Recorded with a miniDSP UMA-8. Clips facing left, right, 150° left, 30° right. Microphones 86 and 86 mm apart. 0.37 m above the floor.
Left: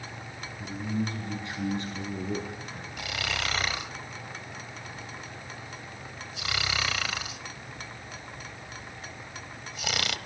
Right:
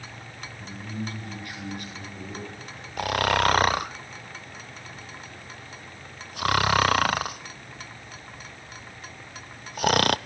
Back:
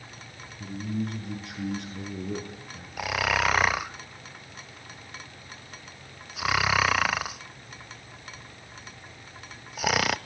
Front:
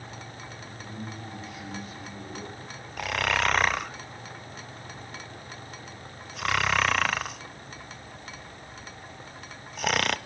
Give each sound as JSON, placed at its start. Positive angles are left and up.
{"t": 0.6, "sound": "a man speaking", "azimuth_deg": 165, "distance_m": 6.5}
{"t": 3.0, "sound": "snoring", "azimuth_deg": -125, "distance_m": 0.5}